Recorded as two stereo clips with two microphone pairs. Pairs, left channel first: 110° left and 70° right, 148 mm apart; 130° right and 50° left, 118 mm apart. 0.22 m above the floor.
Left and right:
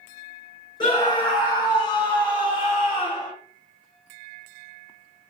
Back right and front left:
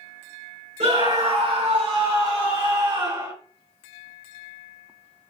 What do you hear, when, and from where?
0.8 s a scream: 55° left, 3 m; by 3.3 s 70° left, 1.8 m